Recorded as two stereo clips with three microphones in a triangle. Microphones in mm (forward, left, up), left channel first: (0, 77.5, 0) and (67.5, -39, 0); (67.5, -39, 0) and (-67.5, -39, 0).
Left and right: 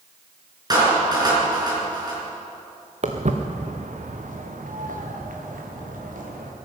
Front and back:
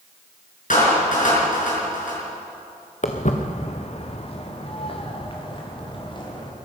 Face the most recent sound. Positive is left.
turn(degrees=-55)